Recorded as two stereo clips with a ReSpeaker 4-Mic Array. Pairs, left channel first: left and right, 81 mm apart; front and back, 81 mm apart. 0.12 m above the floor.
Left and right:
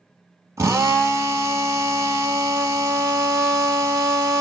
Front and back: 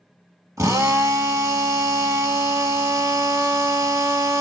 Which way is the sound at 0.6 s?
140° right.